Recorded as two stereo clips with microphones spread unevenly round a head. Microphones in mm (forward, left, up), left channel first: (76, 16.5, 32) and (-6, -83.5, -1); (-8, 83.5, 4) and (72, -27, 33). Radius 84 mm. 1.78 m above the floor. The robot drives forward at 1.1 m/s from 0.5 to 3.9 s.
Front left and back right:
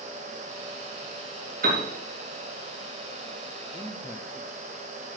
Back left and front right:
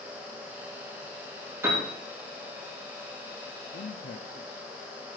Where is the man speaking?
150° left, 0.6 m; by 4.7 s 155° left, 0.8 m.